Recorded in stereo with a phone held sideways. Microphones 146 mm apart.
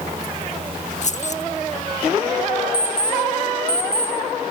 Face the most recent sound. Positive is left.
turn(degrees=25)  # may be behind; listen again after turning